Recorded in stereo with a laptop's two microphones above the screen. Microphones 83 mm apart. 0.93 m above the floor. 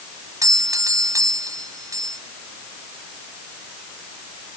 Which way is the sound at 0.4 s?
45° right (ahead or behind).